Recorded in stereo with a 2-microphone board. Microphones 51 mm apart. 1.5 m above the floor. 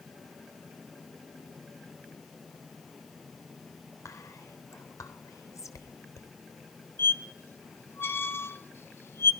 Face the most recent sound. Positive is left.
turn(degrees=45)  # may be behind; listen again after turning